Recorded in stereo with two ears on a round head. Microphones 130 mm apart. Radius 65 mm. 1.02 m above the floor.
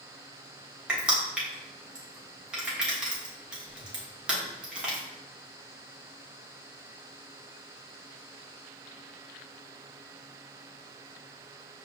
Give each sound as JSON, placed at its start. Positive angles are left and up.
{"t": 0.9, "sound": "crushing", "side_deg": -5, "distance_m": 1.2}